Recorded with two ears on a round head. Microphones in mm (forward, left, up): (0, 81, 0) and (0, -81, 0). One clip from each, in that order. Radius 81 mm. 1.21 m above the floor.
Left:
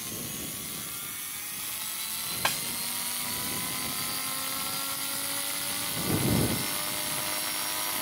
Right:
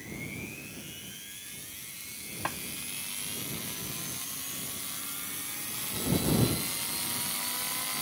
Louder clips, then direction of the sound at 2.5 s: Left 6 dB; 75° left (ahead or behind).